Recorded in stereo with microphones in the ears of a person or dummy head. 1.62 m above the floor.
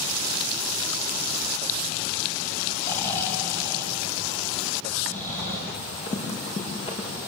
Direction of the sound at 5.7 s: 35° left (ahead or behind).